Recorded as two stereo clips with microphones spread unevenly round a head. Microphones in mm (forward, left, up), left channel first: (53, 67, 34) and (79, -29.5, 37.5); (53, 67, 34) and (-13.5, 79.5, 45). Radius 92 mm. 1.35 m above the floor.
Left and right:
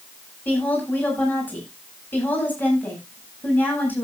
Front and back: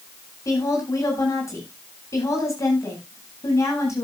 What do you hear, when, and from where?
0.5 s a woman speaking: 30° left, 9.5 m